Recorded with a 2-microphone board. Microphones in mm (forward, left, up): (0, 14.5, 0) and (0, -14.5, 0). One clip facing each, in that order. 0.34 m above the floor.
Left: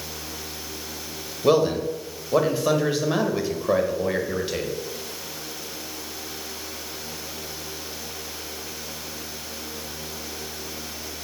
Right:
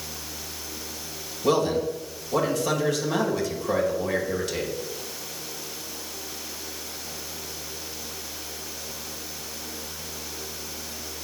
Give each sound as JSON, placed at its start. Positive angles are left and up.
{"t": 1.4, "sound": "a man speaking", "side_deg": 25, "distance_m": 1.6}